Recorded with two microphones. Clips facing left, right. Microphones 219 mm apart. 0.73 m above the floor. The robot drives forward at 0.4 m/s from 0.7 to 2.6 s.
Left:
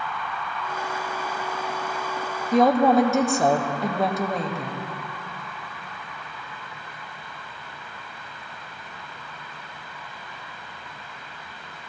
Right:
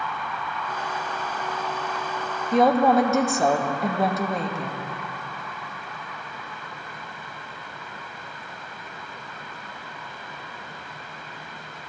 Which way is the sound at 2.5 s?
Centre (ahead or behind).